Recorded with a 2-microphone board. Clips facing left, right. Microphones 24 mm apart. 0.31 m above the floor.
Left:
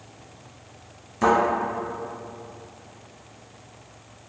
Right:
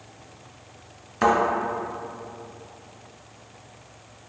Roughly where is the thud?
Right.